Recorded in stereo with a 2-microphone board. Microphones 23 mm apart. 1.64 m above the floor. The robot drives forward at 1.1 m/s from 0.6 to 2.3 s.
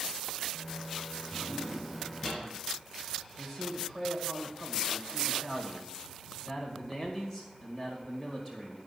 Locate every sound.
1.3 s a drawer: 15° left (ahead or behind), 5.5 m; by 2.4 s 10° left (ahead or behind), 6.5 m
3.4 s a man speaking: 5° right (ahead or behind), 1.8 m